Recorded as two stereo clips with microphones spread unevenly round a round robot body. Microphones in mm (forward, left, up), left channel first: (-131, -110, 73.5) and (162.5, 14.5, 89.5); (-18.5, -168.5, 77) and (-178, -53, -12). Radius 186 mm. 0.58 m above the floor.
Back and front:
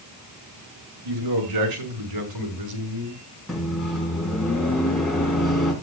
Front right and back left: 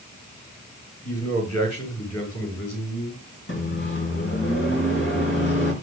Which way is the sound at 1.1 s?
5° left.